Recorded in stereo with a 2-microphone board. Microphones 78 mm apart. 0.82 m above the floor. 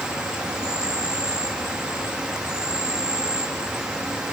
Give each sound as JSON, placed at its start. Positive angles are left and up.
{"t": 0.0, "sound": "an insect", "side_deg": -10, "distance_m": 0.8}